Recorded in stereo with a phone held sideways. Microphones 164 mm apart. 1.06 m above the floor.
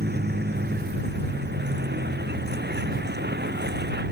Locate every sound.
0.0 s a vehicle: 75° right (ahead or behind); by 4.1 s 85° right